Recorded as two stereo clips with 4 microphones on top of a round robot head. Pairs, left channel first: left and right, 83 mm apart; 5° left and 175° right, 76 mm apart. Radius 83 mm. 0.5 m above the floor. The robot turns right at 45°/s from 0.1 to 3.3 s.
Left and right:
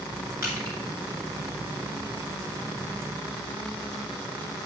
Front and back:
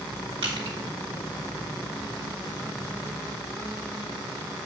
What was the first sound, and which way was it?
Crushing, 160° right.